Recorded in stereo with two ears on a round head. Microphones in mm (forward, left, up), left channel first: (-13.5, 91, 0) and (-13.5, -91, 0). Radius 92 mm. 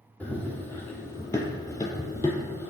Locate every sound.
0.2 s running footsteps: 10° left (ahead or behind), 0.9 m